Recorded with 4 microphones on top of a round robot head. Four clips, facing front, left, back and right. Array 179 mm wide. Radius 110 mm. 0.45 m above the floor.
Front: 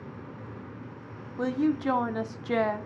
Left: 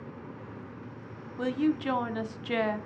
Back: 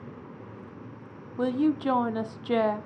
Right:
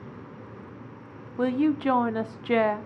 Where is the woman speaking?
115° right, 0.8 m.